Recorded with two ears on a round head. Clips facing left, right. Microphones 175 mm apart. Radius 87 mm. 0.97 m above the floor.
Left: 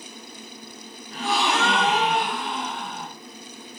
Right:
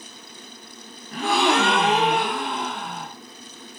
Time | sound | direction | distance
1.1 | a gasp | 50° right (ahead or behind) | 0.6 m